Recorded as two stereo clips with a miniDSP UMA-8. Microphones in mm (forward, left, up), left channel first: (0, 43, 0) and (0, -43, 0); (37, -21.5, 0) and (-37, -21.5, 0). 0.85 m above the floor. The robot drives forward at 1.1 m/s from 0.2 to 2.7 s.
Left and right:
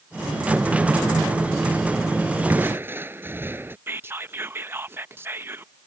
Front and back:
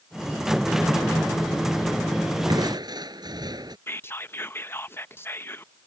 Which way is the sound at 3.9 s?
40° right.